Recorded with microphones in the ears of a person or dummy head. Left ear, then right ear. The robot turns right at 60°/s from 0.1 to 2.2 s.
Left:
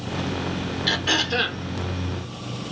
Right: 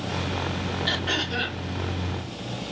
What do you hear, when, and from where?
0.9 s throat clearing: 20° left, 1.2 m; by 1.6 s 65° left, 1.2 m